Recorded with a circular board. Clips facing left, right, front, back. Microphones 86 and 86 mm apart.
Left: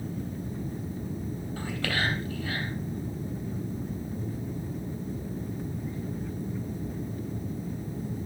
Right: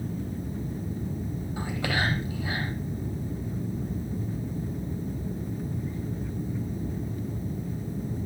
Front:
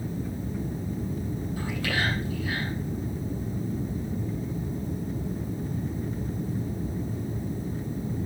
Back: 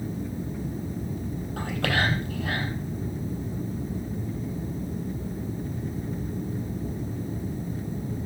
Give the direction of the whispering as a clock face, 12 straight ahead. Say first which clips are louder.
Right 2 dB, back 4 dB; 5 o'clock.